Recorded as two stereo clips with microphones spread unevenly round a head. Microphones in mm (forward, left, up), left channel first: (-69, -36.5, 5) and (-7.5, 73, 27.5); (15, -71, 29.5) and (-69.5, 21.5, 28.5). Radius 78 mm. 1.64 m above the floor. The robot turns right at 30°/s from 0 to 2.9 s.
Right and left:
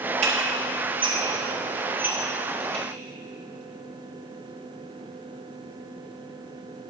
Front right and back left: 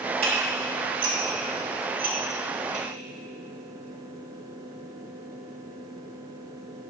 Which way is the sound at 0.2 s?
80° left.